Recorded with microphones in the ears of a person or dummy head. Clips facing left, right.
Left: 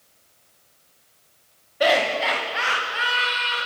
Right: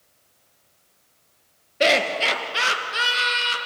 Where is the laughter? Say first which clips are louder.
Left 1 dB; 30° right (ahead or behind), 2 m; by 3.6 s 60° right (ahead or behind), 3 m.